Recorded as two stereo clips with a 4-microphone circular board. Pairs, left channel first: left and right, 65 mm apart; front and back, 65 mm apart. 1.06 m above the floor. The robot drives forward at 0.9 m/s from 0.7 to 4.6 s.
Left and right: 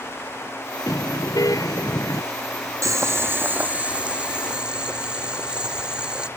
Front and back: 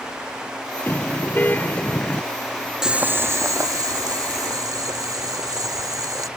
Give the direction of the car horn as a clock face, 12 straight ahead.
10 o'clock.